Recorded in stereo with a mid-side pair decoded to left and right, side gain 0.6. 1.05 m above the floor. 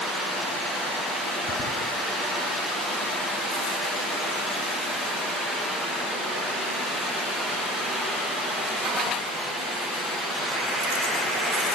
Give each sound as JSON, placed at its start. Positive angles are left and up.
{"t": 1.5, "sound": "whispering", "azimuth_deg": 65, "distance_m": 5.5}